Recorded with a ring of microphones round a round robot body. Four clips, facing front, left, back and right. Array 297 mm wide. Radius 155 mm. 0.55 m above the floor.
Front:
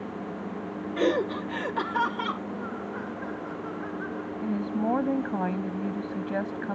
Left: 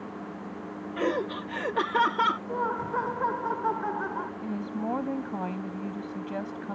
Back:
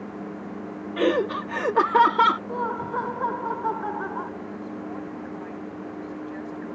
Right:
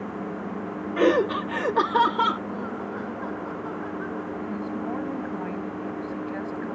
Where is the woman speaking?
10° left.